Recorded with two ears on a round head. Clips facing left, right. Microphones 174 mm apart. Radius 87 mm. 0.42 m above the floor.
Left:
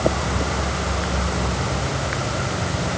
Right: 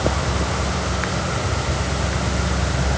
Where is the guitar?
No guitar in this recording.